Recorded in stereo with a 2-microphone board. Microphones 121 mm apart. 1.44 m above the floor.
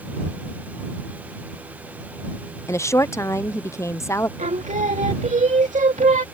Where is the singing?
85° right.